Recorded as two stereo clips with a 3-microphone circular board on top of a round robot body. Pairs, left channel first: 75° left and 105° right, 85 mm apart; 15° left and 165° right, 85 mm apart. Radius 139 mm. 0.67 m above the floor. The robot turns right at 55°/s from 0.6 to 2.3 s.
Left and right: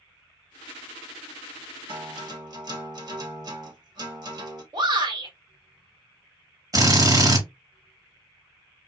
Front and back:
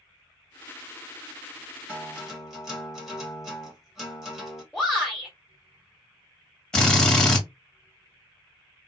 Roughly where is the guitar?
Right.